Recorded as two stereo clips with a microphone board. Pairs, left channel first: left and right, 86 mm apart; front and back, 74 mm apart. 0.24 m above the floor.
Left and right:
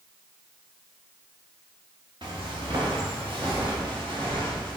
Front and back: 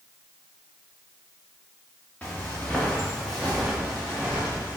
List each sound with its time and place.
2.2 s footsteps: 70° right, 1.5 m; by 4.8 s 110° right, 2.5 m